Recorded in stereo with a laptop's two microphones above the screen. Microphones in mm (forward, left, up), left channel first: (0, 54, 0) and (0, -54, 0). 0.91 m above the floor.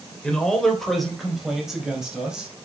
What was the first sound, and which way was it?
A man speaking, 10° left (ahead or behind).